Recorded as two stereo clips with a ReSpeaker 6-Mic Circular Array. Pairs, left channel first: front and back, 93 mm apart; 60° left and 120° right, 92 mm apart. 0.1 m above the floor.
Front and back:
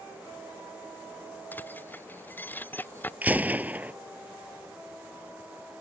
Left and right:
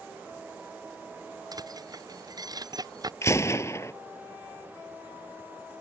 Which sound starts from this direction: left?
A gunshot, at 3.2 s.